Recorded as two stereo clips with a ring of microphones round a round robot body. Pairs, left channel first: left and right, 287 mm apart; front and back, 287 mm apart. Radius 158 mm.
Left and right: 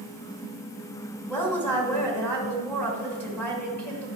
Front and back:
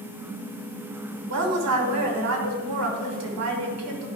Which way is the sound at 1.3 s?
175° left.